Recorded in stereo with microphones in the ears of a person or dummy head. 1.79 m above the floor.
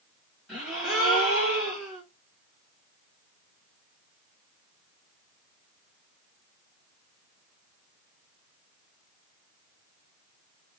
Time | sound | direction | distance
0.5 | a gasp | centre (ahead or behind) | 2.5 m